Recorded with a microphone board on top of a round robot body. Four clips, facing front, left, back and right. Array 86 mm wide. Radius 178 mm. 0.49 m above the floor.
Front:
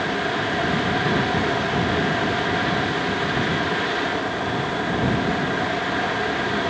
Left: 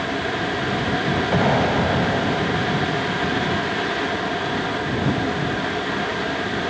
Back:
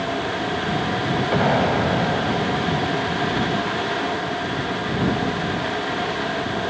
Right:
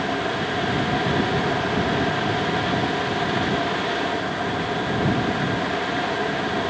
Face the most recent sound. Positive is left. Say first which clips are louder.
# left 4 dB, back 3 dB
turn(degrees=140)